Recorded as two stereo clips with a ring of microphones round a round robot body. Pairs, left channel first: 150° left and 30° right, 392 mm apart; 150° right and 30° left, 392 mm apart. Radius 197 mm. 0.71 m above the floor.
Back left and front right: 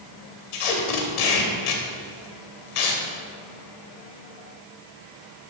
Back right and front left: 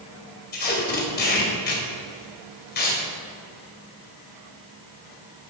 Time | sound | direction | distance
0.5 | tape being pulled | 145° left | 2 m